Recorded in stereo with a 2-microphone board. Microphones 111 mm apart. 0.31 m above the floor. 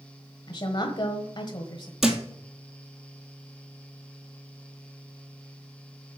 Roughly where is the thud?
Centre.